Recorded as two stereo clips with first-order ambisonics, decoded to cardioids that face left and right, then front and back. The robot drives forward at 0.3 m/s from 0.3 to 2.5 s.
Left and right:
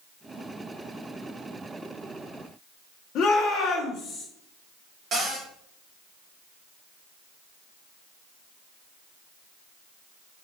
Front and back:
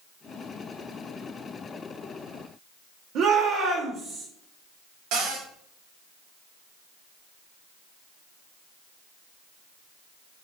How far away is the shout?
About 0.9 m.